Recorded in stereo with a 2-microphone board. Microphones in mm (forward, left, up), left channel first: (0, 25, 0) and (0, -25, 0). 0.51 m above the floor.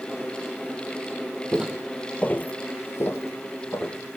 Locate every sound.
1.5 s footsteps: 15° right (ahead or behind), 0.9 m; by 4.0 s 55° left (ahead or behind), 1.9 m